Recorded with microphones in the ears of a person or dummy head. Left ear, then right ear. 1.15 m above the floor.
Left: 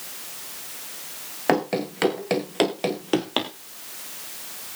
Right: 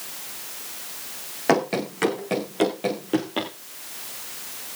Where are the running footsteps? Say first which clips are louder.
Right 1 dB; centre (ahead or behind), 1.3 m; by 3.5 s 40° left (ahead or behind), 2 m.